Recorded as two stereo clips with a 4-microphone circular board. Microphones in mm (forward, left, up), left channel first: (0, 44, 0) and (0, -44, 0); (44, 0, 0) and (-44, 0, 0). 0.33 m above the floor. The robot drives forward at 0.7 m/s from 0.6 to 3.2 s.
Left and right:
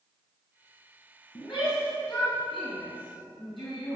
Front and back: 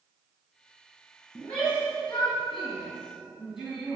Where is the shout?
70° left, 3.5 m; by 4.0 s 95° left, 3.5 m.